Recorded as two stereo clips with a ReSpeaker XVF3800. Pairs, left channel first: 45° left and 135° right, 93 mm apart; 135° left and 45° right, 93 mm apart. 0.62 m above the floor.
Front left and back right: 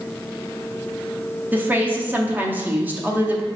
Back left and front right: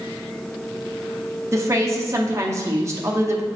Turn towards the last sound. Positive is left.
turn(degrees=-75)